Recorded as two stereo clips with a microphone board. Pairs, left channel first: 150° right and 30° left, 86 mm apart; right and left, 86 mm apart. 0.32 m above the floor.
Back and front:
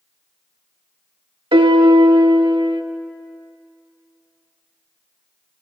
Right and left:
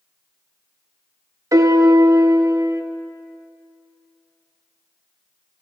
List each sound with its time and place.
1.5 s a piano: 40° left, 0.6 m